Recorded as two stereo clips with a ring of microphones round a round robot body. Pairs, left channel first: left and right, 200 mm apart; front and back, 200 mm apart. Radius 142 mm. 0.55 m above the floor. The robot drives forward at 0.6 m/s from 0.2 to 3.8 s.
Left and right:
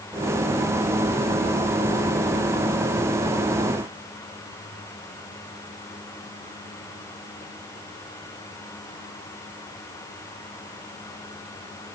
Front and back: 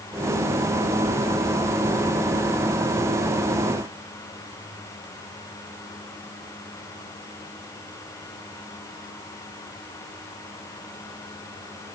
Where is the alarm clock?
I don't hear an alarm clock.